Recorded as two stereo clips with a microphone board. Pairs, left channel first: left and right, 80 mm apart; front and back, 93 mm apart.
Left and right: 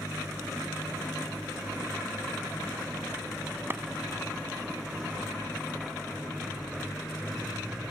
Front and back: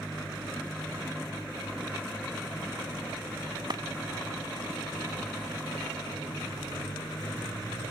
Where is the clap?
145° right.